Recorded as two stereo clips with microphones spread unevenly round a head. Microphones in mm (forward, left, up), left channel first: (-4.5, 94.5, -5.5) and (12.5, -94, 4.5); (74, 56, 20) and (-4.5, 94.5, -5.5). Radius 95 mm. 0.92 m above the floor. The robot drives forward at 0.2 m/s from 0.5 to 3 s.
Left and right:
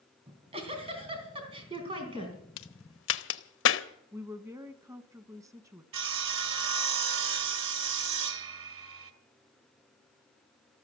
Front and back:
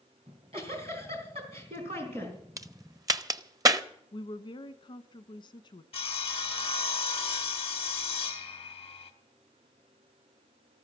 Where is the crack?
105° left, 0.9 m; by 3.8 s 110° left, 0.9 m.